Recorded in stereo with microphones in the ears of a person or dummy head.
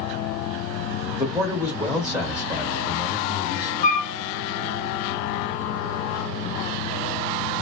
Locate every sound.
1.2 s a man speaking: 10° right (ahead or behind), 1.4 m
3.8 s a flute: 35° left (ahead or behind), 0.5 m